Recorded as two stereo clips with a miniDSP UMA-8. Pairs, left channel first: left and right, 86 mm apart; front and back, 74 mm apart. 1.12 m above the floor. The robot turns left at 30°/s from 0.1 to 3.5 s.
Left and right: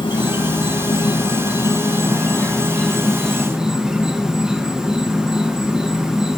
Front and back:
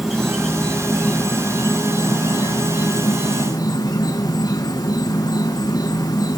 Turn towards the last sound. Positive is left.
turn(degrees=-10)